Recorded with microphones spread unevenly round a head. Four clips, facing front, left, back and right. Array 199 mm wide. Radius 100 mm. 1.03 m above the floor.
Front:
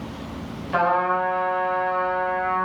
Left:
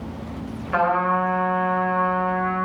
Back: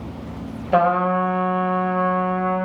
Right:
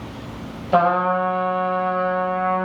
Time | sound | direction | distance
0.7 | a trumpet | 145° right | 4 m